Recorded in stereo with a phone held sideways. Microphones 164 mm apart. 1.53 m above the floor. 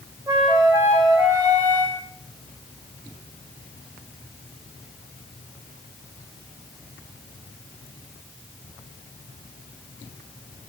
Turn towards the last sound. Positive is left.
turn(degrees=-20)  # may be behind; listen again after turning